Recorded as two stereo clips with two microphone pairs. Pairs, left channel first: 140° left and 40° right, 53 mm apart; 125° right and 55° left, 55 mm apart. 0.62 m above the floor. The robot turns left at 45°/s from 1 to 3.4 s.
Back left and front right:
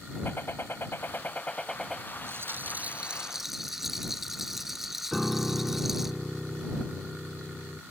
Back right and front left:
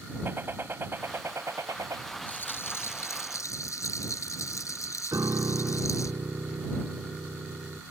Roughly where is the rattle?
Right.